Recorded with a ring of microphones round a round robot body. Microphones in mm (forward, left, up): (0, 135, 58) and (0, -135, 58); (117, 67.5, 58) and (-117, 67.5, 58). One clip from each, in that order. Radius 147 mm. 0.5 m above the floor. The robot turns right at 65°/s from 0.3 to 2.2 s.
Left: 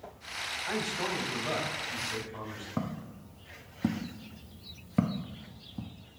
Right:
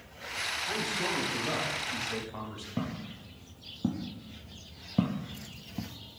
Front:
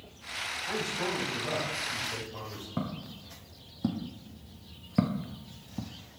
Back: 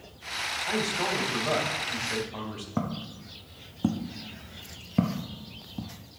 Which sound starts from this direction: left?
A man speaking, at 0.7 s.